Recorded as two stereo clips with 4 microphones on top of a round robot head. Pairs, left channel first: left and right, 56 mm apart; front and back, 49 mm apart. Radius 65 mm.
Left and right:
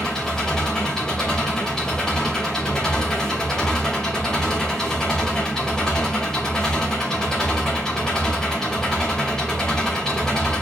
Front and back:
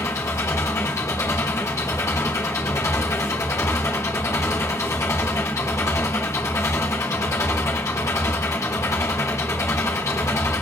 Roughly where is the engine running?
Ahead.